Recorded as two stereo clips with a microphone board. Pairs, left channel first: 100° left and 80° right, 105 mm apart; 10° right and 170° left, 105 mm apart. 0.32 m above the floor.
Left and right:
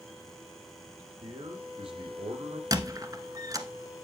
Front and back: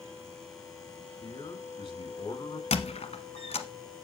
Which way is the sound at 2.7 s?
25° right.